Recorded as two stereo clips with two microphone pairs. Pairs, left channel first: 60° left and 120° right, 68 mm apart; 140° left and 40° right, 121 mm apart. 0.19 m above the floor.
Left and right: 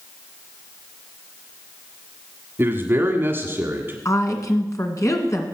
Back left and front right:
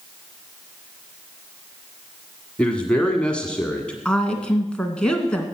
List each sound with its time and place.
2.6 s a man speaking: 145° right, 1.4 m
4.0 s a woman speaking: 60° left, 2 m